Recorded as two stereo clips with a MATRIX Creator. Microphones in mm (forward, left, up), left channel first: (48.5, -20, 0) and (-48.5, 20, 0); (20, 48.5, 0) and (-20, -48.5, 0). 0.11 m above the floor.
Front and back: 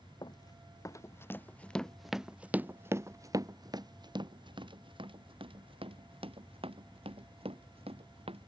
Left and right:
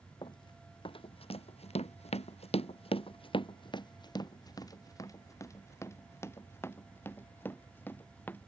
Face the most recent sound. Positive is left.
turn(degrees=140)